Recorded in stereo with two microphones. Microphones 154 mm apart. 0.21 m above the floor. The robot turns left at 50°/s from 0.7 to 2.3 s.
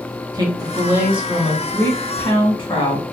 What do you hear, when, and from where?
0.3 s a woman speaking: 145° right, 1.7 m; by 3.1 s 135° left, 1.7 m